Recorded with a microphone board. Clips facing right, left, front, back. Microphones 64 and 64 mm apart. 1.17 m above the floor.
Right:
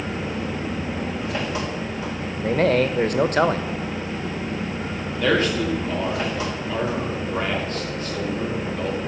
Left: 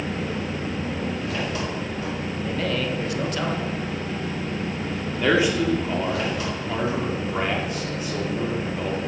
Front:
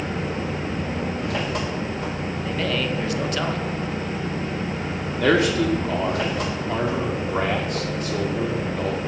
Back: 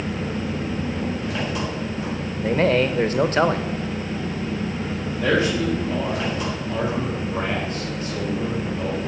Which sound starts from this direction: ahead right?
An engine running, at 0.0 s.